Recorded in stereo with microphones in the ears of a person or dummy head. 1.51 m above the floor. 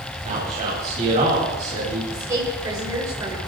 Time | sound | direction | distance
0.2 | a man speaking | 35° right (ahead or behind) | 10 m
2.1 | a woman speaking | 20° right (ahead or behind) | 7 m